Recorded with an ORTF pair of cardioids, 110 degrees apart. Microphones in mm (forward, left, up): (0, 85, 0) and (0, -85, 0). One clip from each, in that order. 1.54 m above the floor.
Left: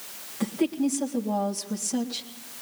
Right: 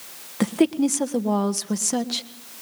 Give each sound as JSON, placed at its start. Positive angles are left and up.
{"t": 0.4, "sound": "a woman speaking", "azimuth_deg": -65, "distance_m": 1.5}